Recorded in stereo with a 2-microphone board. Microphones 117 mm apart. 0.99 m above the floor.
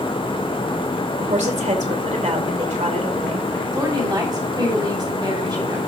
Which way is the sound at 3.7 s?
35° right (ahead or behind).